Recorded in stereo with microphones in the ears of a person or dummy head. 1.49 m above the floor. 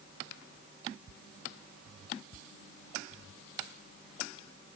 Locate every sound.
Only background noise.